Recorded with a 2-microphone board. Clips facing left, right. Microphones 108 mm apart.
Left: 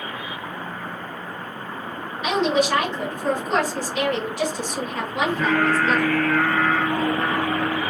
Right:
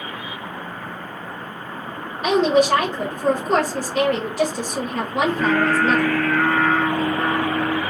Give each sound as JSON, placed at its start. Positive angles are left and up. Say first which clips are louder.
{"t": 2.2, "sound": "a woman speaking", "louder": "right 4 dB", "side_deg": -45, "distance_m": 1.0}
{"t": 5.2, "sound": "singing", "louder": "right 1 dB", "side_deg": -40, "distance_m": 1.4}